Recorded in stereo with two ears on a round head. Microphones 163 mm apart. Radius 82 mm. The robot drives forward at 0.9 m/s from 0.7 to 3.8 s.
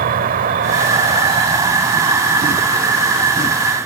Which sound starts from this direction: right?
An insect, at 0.0 s.